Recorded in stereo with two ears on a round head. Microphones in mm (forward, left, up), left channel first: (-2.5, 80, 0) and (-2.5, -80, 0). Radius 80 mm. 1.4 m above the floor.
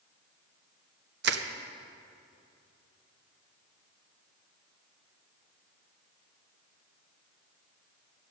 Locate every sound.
1.2 s crushing: 65° right (ahead or behind), 0.8 m